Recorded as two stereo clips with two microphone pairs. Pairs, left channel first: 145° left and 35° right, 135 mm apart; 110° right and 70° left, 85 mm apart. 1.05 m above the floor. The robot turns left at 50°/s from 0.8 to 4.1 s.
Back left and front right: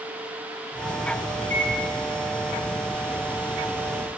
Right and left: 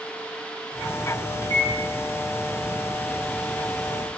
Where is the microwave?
55° right, 3 m; by 1.7 s 70° right, 3 m.